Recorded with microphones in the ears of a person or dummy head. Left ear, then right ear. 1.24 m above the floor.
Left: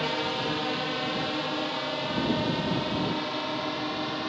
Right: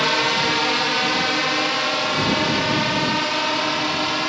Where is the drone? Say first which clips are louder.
Right 10 dB; 50° right (ahead or behind); by 4.3 s 65° right (ahead or behind).